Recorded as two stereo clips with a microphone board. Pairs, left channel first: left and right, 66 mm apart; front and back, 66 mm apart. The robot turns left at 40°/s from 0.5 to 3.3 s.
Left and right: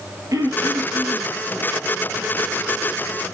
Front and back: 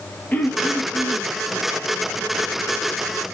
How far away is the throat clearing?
About 1.1 m.